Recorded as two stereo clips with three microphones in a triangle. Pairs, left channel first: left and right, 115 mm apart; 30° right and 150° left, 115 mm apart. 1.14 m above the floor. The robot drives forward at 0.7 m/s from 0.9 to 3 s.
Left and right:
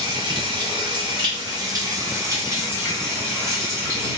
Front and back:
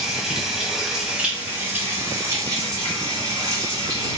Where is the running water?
125° right, 1.6 m; by 4.2 s 155° right, 2.5 m.